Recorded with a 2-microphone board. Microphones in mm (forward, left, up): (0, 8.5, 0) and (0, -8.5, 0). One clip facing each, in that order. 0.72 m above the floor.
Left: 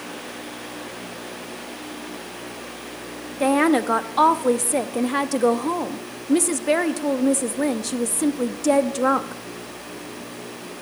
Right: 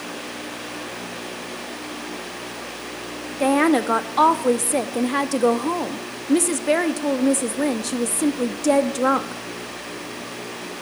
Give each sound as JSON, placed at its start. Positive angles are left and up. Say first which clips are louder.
{"t": 3.4, "sound": "a woman speaking", "louder": "even", "side_deg": 0, "distance_m": 0.7}